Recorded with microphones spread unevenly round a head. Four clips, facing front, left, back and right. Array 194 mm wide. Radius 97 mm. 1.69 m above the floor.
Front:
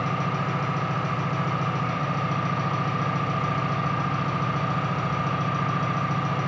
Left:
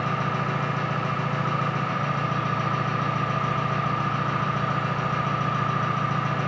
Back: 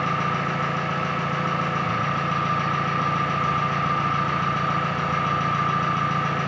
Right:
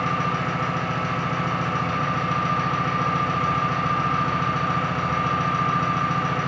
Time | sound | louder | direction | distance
0.0 | an engine running | right 2 dB, back 3 dB | 140° right | 0.8 m